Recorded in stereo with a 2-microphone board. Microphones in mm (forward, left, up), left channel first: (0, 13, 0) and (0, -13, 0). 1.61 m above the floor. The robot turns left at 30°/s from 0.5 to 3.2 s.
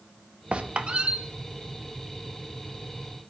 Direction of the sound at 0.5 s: 45° right (ahead or behind).